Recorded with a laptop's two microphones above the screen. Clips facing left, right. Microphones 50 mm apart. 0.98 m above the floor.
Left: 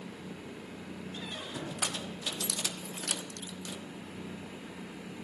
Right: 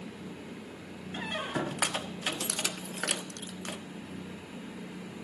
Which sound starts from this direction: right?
A squeak, at 1.1 s.